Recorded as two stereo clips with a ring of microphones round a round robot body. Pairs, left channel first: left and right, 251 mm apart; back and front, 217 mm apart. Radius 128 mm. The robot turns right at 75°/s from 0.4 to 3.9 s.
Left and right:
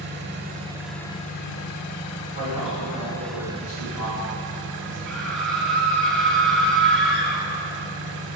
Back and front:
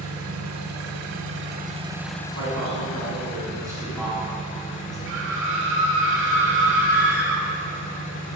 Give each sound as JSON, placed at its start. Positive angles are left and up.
{"t": 0.0, "sound": "an engine running", "azimuth_deg": -40, "distance_m": 0.7}
{"t": 2.3, "sound": "a man speaking", "azimuth_deg": -30, "distance_m": 3.0}
{"t": 5.1, "sound": "a scream", "azimuth_deg": 5, "distance_m": 2.0}